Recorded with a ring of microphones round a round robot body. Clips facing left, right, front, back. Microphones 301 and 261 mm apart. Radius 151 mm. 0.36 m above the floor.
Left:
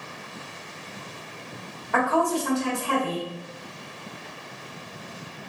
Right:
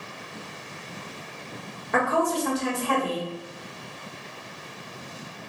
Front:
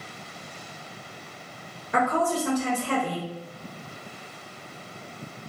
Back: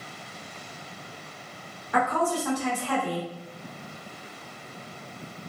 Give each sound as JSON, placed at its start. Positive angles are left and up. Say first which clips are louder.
{"t": 1.9, "sound": "a woman speaking", "louder": "left 1 dB, front 1 dB", "azimuth_deg": -40, "distance_m": 1.3}